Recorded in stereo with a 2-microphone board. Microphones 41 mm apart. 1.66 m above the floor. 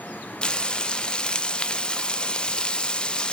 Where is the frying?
20° left (ahead or behind), 0.5 m.